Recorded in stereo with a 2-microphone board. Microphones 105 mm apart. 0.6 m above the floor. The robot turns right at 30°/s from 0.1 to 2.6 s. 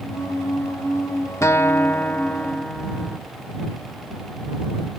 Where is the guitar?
130° left; by 3.2 s 170° left.